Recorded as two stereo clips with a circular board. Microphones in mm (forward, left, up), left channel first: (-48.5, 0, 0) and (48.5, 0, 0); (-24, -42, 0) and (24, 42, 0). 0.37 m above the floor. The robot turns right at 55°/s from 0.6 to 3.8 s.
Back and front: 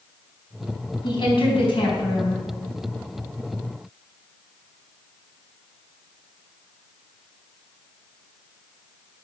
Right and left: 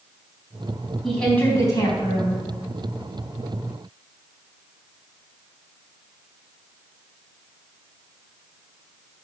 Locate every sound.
1.0 s a woman speaking: 150° left, 3 m; by 2.4 s 135° right, 3 m